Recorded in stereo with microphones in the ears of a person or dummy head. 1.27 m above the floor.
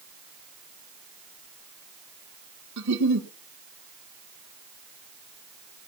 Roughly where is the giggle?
Right.